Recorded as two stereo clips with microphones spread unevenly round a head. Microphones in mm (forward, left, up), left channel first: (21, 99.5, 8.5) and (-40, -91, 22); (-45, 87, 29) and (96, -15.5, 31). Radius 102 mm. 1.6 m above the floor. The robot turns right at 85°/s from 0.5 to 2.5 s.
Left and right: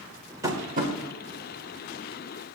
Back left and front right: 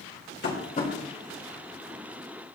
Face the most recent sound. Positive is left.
turn(degrees=-10)